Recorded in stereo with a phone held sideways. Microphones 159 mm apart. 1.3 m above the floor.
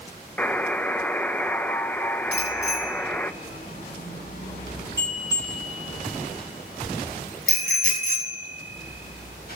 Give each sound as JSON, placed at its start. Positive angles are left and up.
{"t": 0.4, "sound": "a buzzer", "side_deg": 10, "distance_m": 0.7}
{"t": 2.3, "sound": "a bicycle bell", "side_deg": 85, "distance_m": 8.0}